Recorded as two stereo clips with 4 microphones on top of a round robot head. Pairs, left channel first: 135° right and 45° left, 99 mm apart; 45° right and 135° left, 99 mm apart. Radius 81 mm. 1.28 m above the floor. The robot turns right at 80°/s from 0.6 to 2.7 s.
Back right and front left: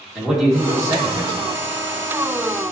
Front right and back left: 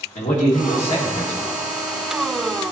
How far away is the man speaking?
About 1.8 m.